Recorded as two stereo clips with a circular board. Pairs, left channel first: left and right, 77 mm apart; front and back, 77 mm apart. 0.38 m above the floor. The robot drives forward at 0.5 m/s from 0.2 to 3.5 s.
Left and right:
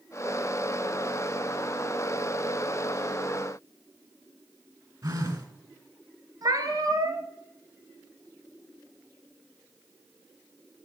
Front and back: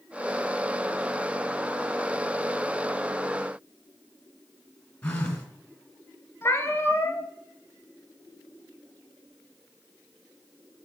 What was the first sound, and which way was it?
A phone buzzing, 70° right.